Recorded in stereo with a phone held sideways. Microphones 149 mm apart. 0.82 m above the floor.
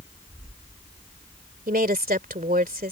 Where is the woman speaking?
75° right (ahead or behind).